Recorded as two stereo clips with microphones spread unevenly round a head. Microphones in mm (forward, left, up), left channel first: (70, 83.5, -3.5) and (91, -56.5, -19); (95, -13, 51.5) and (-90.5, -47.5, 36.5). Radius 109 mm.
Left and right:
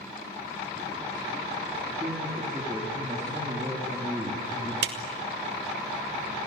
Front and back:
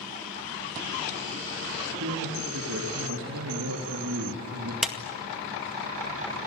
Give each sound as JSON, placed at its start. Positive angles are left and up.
{"t": 2.0, "sound": "a man speaking", "azimuth_deg": -155, "distance_m": 4.0}
{"t": 4.8, "sound": "a clap", "azimuth_deg": -80, "distance_m": 2.0}